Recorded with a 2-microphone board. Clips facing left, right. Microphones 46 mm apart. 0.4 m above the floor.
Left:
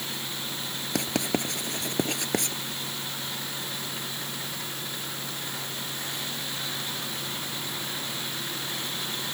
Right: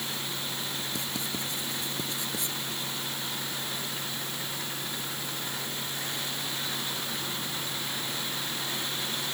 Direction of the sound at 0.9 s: 65° left (ahead or behind).